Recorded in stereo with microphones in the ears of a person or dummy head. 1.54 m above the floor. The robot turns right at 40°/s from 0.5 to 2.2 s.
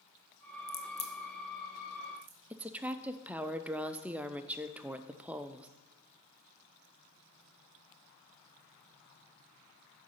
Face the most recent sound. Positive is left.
turn(degrees=-10)  # may be behind; listen again after turning